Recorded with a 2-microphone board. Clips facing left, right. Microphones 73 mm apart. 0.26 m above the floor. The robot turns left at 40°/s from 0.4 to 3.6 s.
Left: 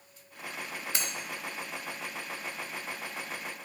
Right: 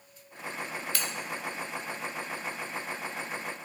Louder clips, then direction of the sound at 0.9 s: Left 1 dB; 20° left (ahead or behind).